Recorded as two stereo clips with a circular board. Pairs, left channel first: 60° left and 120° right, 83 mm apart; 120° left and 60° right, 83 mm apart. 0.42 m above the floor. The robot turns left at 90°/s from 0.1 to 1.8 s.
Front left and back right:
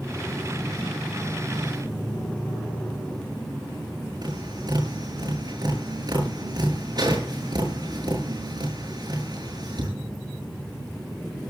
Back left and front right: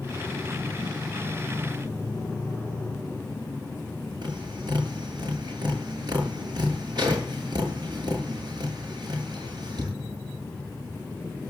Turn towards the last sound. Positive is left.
turn(degrees=-90)